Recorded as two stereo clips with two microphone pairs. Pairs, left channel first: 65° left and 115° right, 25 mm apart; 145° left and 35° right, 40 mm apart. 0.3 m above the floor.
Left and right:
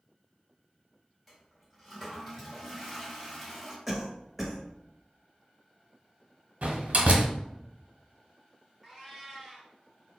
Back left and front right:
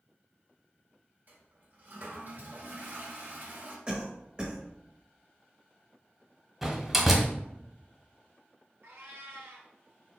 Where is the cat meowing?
35° right, 1.9 m.